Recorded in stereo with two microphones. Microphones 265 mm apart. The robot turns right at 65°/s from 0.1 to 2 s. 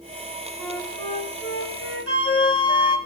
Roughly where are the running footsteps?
No running footsteps in this recording.